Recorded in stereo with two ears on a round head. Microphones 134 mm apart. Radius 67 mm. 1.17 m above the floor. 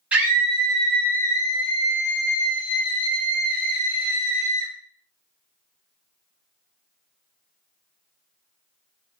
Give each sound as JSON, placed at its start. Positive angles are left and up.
{"t": 0.1, "sound": "a scream", "side_deg": -10, "distance_m": 1.1}